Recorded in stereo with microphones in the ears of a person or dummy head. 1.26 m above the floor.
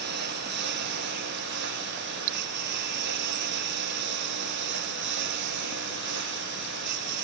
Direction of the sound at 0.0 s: 55° right (ahead or behind).